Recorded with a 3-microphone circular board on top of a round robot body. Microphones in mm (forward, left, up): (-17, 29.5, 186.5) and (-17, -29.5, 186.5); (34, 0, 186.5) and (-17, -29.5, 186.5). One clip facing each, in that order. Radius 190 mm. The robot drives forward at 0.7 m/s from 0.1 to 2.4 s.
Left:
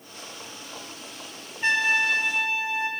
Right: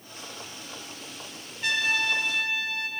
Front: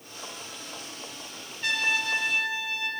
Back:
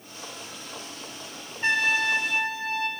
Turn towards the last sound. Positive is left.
turn(degrees=155)